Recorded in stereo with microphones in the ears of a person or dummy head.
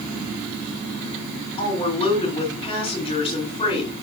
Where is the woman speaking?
40° left (ahead or behind), 3 m.